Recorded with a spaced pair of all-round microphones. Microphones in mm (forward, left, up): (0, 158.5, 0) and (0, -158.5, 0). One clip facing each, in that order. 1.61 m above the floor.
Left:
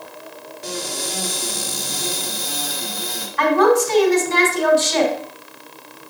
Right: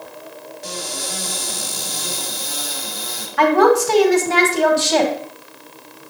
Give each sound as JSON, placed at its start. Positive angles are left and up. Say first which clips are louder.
{"t": 0.6, "sound": "a cupboard door", "louder": "left 3 dB", "side_deg": 70, "distance_m": 2.5}
{"t": 3.4, "sound": "a woman speaking", "louder": "right 1 dB", "side_deg": -75, "distance_m": 1.9}